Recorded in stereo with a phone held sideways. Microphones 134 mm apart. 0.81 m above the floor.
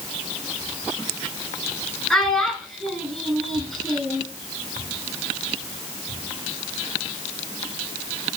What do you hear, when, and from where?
2.1 s a child speaking: centre (ahead or behind), 4 m